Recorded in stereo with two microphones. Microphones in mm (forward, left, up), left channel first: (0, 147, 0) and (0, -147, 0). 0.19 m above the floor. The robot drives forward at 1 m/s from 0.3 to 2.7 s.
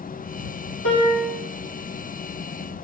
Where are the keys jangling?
No keys jangling in this recording.